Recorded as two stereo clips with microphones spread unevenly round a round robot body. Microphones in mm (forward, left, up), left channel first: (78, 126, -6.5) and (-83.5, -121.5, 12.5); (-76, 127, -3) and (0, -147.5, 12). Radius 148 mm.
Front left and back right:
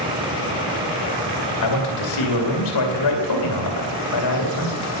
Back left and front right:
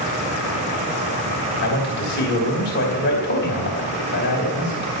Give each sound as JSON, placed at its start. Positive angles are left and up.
{"t": 1.6, "sound": "a man speaking", "azimuth_deg": 50, "distance_m": 2.5}